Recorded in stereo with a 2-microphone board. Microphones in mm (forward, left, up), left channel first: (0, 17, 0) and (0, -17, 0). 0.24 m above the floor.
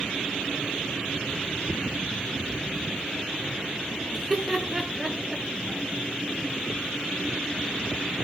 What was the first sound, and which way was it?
Laughter, centre (ahead or behind).